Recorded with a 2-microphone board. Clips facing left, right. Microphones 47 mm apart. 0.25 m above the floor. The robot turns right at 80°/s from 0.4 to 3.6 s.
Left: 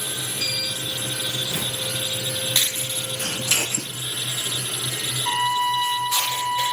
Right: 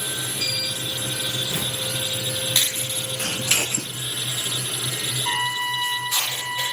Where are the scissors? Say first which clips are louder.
Right 1 dB; 55° right (ahead or behind), 3 m; by 3.9 s 35° right (ahead or behind), 3 m.